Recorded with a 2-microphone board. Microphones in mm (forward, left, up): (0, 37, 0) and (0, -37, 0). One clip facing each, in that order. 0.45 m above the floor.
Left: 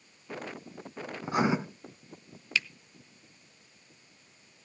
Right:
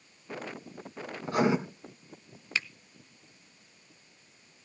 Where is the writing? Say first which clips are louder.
Right 1 dB; 20° left (ahead or behind), 1.6 m.